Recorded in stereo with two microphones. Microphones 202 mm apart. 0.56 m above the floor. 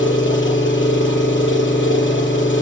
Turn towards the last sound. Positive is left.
turn(degrees=70)  # may be behind; listen again after turning